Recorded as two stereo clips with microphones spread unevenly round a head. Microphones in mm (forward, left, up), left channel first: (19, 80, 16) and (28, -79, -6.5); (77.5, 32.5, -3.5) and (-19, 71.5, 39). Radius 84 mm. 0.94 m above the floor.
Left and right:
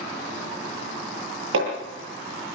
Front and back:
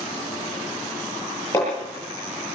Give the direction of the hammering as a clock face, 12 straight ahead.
3 o'clock.